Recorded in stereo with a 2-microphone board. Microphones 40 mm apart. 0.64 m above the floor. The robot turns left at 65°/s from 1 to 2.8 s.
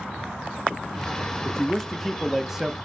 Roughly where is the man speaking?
Centre.